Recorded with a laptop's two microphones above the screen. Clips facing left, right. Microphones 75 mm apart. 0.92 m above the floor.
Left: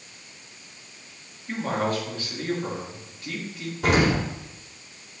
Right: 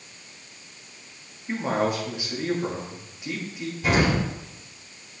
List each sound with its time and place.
1.5 s a man speaking: 10° right (ahead or behind), 1.5 m
3.8 s an explosion: 80° left, 3 m